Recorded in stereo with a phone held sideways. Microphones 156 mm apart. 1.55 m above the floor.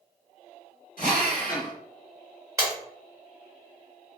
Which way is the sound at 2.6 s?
20° right (ahead or behind).